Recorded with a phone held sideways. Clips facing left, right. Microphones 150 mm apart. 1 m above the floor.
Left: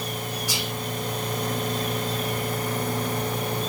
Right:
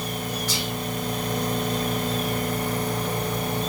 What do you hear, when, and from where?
0.5 s whispering: 10° left (ahead or behind), 0.9 m